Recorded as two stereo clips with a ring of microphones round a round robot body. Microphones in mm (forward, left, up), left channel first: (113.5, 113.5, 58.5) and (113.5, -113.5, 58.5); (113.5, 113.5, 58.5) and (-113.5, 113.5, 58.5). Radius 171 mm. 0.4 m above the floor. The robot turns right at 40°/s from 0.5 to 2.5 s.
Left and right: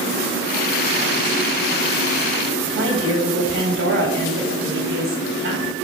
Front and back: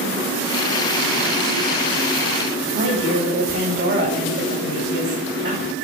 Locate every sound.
2.7 s a woman speaking: 135° right, 2.5 m